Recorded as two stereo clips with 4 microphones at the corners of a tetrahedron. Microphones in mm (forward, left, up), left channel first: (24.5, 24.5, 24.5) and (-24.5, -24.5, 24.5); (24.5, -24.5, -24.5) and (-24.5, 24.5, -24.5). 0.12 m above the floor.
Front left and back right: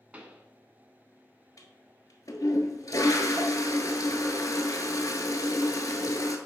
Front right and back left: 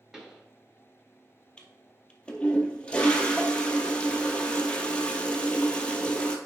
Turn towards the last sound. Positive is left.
turn(degrees=25)